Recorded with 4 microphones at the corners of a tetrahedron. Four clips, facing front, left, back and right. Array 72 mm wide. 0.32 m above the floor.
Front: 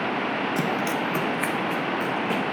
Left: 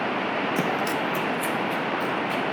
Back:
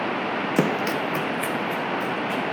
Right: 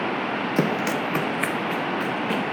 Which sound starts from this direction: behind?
Running footsteps, at 0.6 s.